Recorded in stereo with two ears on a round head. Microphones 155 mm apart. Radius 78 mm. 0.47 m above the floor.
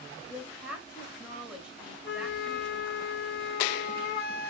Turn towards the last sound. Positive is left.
turn(degrees=-5)  # may be behind; listen again after turning